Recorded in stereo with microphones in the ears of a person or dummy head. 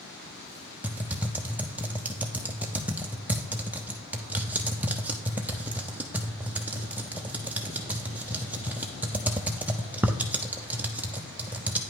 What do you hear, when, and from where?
0.8 s typing on a keyboard: 10° right (ahead or behind), 0.6 m